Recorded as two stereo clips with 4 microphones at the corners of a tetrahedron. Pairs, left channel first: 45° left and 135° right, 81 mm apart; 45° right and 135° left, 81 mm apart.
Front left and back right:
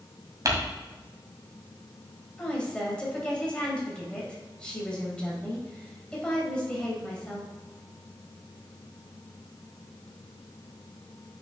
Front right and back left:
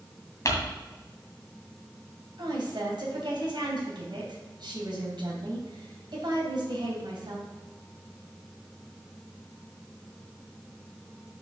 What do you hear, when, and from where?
0.5 s crumpling: 95° right, 1.9 m
2.4 s a woman speaking: 125° left, 3 m